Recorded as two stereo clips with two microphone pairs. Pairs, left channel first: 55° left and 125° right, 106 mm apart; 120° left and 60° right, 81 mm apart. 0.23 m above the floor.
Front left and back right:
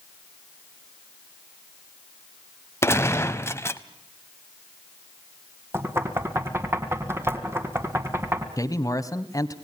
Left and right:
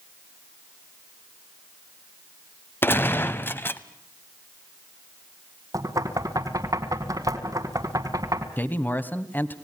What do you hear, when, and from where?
2.8 s a gunshot: 95° left, 0.8 m
5.7 s knocking: 70° right, 2 m
8.6 s a man speaking: 80° left, 1.1 m